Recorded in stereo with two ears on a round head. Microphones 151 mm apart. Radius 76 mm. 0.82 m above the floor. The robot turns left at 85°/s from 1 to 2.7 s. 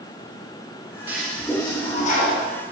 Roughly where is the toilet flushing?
Behind.